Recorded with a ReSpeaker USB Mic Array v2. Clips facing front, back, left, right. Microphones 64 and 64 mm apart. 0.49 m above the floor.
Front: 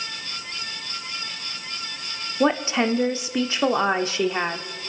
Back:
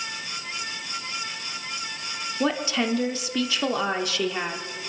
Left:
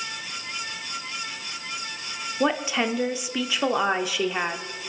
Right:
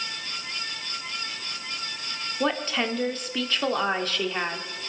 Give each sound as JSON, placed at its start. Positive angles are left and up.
{"t": 2.4, "sound": "a woman speaking", "azimuth_deg": 25, "distance_m": 1.0}